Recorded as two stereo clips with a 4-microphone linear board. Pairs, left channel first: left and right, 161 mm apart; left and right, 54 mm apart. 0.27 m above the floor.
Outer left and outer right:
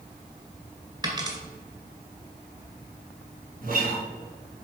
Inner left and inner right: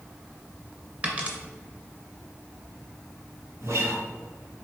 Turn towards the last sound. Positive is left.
turn(degrees=-60)  # may be behind; listen again after turning